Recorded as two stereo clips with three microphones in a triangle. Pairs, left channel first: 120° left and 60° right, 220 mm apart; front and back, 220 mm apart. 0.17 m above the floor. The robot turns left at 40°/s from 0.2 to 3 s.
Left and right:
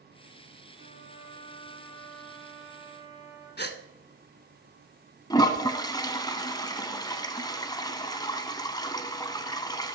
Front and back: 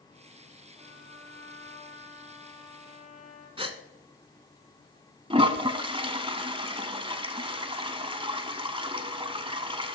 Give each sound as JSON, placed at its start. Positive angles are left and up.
{"t": 0.8, "sound": "a trumpet", "azimuth_deg": 100, "distance_m": 4.0}
{"t": 3.6, "sound": "a gasp", "azimuth_deg": 120, "distance_m": 0.8}
{"t": 5.3, "sound": "a toilet flushing", "azimuth_deg": 165, "distance_m": 1.0}